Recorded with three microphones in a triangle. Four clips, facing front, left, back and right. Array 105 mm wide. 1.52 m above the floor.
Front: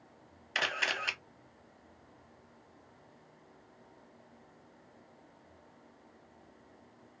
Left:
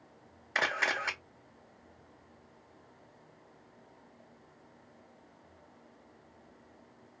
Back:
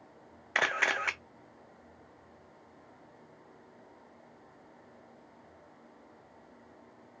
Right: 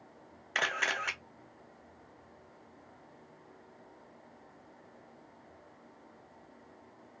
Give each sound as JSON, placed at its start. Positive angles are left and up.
{"t": 0.6, "sound": "a camera shutter", "azimuth_deg": 165, "distance_m": 0.5}